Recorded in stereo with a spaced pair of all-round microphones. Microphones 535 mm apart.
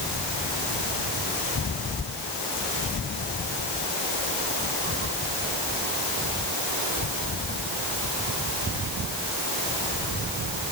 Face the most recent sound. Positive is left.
No sound to turn to.